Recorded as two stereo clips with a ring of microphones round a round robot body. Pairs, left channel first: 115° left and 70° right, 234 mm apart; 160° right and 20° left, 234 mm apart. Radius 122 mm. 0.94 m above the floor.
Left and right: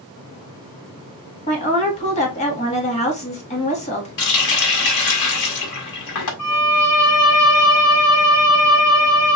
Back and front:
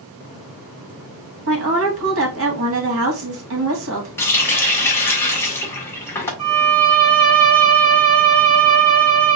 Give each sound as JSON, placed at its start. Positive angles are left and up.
{"t": 1.5, "sound": "a woman speaking", "azimuth_deg": 50, "distance_m": 2.0}
{"t": 4.2, "sound": "a running tap", "azimuth_deg": 120, "distance_m": 1.7}
{"t": 6.4, "sound": "a violin", "azimuth_deg": 90, "distance_m": 3.5}